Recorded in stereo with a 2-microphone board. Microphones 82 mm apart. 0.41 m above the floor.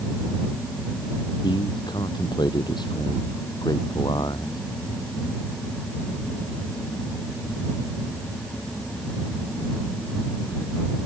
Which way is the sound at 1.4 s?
65° left (ahead or behind).